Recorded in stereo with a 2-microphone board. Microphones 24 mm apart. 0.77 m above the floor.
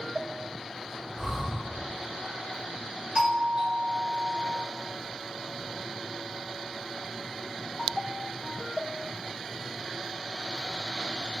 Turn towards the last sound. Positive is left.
turn(degrees=-45)  # may be behind; listen again after turning